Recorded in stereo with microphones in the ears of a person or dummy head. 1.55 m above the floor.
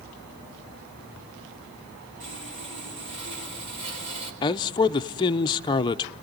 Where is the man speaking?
25° left (ahead or behind), 0.7 m.